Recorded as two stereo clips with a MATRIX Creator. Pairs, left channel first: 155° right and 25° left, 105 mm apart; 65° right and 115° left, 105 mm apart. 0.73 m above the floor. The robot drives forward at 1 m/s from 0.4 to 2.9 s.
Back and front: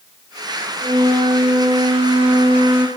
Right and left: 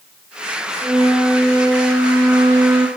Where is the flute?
40° left, 5 m; by 2.9 s 60° left, 3.5 m.